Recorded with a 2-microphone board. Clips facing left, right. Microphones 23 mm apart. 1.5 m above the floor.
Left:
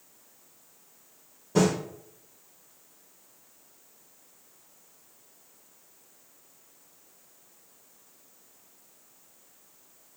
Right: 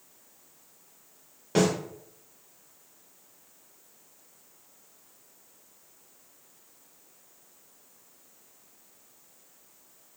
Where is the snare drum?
75° right (ahead or behind), 2.5 m.